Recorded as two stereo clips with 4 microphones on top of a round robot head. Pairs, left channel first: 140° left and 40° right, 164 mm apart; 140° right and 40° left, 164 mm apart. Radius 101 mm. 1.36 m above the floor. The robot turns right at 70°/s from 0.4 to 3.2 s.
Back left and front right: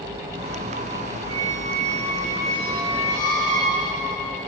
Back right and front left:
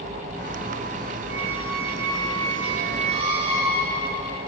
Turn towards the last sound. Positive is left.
turn(degrees=100)